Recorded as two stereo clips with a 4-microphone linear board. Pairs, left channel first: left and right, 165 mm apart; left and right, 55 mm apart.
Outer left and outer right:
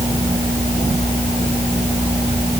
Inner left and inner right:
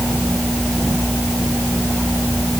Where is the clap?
I don't hear a clap.